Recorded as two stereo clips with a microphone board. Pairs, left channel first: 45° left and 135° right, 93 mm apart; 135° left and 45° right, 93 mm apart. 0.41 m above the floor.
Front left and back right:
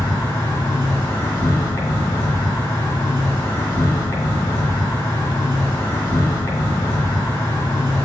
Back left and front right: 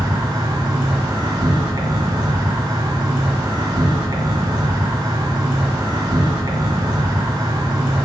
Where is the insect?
15° right, 1.6 m.